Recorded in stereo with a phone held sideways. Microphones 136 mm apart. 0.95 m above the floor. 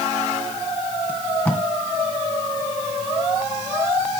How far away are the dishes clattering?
No dishes clattering in this recording.